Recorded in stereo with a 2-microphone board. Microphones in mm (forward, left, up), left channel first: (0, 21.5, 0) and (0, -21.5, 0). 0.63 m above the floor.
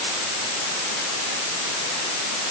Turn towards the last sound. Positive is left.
No sound to turn to.